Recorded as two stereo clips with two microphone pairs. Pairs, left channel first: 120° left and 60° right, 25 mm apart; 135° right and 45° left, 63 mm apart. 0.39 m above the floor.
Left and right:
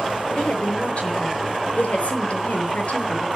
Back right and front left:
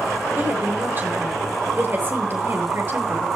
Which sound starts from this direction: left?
A woman speaking, at 0.3 s.